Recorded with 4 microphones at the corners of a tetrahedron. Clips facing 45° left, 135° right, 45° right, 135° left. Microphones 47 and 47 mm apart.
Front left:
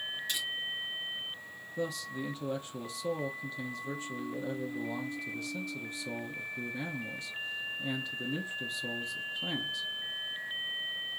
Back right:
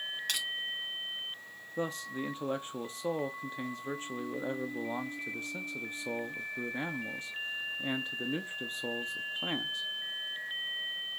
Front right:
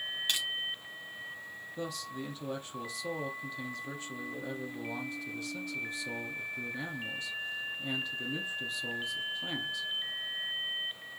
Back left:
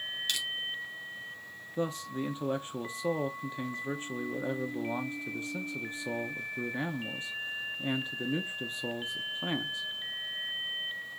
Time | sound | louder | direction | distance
0.3 | crushing | back right 1 dB, front right 1 dB | 110° right | 2.5 m
1.8 | a man speaking | back right 1 dB, back left 6 dB | 175° right | 0.6 m